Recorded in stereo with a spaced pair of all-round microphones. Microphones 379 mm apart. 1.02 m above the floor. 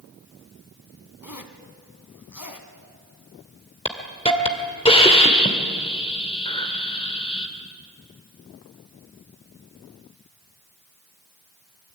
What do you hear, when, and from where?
1.2 s a zipper: 55° left (ahead or behind), 1.7 m
3.9 s a hiss: 15° left (ahead or behind), 1.9 m